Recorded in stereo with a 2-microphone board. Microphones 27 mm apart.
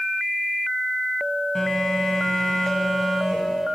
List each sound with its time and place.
1.6 s a phone buzzing: 15° left (ahead or behind), 1.7 m